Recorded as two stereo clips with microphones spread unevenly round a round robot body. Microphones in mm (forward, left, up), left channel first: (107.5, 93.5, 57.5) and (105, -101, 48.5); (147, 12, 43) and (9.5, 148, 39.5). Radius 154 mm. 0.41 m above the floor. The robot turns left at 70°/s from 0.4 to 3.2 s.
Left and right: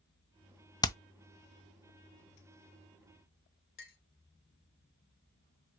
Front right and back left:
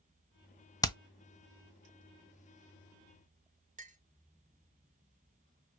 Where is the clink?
100° left, 0.7 m.